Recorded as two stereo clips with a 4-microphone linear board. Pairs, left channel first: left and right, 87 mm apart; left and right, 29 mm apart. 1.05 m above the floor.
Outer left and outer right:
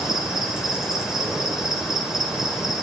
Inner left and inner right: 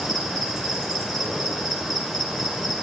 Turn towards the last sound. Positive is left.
turn(degrees=-5)  # may be behind; listen again after turning